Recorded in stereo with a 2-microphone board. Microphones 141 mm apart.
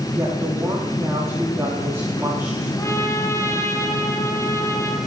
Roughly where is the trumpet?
Centre.